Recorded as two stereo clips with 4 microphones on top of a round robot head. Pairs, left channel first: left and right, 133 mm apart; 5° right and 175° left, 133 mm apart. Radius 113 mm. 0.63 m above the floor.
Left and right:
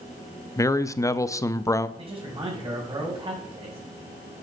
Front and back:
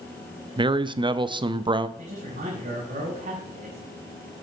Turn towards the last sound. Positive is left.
turn(degrees=-145)